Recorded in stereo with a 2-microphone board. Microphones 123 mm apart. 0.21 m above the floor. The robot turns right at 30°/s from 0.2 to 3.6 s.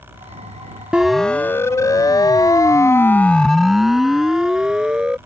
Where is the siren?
10° right (ahead or behind); by 5.2 s 5° right (ahead or behind).